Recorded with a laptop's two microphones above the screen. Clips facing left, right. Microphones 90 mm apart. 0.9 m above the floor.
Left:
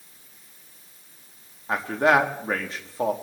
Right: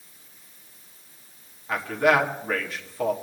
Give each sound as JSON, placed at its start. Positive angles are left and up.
{"t": 1.7, "sound": "a man speaking", "side_deg": 30, "distance_m": 1.4}